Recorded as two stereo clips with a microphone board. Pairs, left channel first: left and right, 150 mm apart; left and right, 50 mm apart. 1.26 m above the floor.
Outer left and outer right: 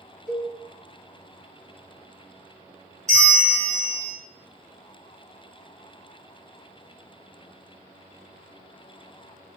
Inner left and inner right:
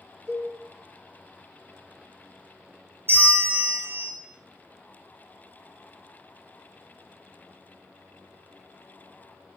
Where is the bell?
50° right (ahead or behind), 1.1 m.